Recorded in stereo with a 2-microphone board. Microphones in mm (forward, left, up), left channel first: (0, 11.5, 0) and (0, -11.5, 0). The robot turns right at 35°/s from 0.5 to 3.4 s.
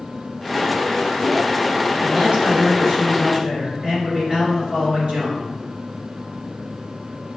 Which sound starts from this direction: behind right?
A man speaking, at 2.0 s.